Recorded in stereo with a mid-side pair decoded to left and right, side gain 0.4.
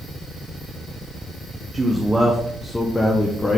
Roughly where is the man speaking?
Ahead right.